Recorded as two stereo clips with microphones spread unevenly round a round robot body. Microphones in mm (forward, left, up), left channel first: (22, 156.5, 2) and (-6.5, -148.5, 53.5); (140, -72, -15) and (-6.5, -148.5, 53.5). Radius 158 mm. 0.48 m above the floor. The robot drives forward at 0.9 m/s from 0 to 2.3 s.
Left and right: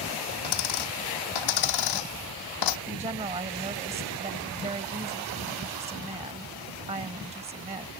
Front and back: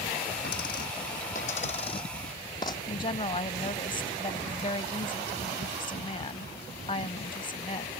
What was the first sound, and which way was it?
A dropped coin, 85° left.